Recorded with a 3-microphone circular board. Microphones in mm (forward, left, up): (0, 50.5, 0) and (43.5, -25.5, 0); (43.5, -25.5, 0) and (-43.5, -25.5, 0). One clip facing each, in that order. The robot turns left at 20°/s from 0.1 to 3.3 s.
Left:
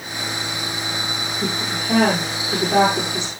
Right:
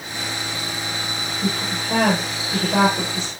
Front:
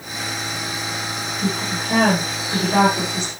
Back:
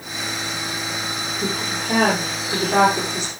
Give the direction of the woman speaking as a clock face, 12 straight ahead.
7 o'clock.